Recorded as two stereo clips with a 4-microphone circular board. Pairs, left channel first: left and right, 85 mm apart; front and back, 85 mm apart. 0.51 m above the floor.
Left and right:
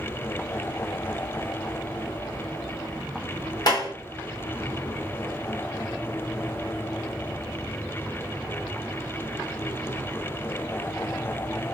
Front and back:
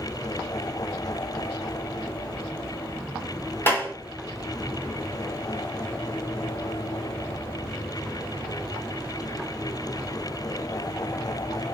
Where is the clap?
60° left, 1.1 m.